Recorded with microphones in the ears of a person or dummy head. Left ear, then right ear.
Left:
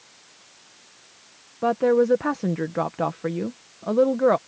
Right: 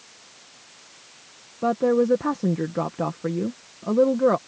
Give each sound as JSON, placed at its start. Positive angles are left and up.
{"t": 1.6, "sound": "a woman speaking", "side_deg": 25}